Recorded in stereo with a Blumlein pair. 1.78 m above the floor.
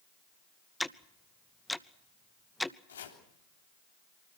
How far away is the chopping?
About 3.5 m.